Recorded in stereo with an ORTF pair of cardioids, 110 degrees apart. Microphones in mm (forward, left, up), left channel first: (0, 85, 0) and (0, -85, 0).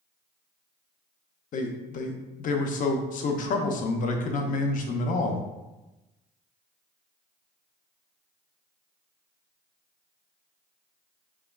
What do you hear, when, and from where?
1.5 s a man speaking: 50° left, 0.6 m